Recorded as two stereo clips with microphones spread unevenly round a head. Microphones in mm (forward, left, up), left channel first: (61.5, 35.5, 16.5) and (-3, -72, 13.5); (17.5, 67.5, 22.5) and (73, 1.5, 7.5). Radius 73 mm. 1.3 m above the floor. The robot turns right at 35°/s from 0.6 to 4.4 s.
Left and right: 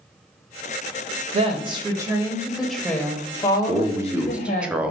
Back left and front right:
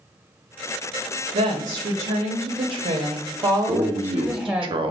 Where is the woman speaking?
75° right, 0.6 m; by 4.7 s 30° left, 0.6 m.